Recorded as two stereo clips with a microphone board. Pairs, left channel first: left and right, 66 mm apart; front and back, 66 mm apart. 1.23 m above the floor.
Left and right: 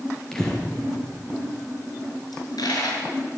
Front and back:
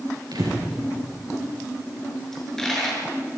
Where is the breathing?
175° left, 5 m.